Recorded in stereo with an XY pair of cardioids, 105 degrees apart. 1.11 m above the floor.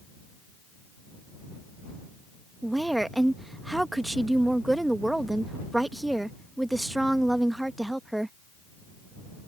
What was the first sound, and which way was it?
A woman speaking, 10° right.